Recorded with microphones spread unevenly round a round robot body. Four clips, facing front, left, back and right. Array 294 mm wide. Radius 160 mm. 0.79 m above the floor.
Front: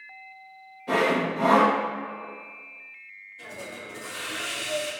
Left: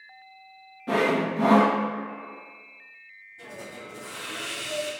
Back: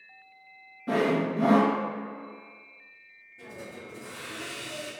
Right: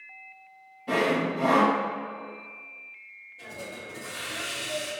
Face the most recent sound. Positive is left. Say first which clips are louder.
# even, front 2 dB
turn(degrees=165)